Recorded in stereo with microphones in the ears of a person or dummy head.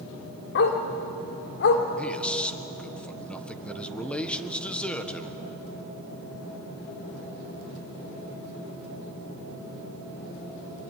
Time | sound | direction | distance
0.6 | a dog barking | 55° left (ahead or behind) | 2 m
2.0 | a man speaking | 5° left (ahead or behind) | 1.4 m